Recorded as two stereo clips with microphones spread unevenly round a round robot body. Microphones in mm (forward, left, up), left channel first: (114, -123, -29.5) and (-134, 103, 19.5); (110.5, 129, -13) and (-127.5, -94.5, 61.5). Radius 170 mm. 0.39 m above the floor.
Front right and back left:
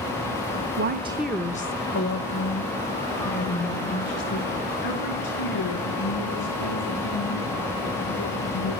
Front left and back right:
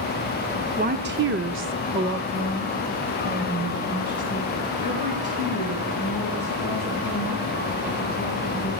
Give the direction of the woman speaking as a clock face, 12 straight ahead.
7 o'clock.